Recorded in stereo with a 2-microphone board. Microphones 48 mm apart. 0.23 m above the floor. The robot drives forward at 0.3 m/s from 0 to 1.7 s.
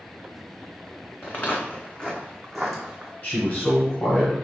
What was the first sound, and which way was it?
Footsteps, 55° left (ahead or behind).